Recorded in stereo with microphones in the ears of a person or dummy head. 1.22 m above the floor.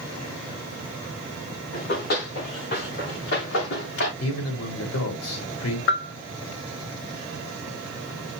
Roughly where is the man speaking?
Left.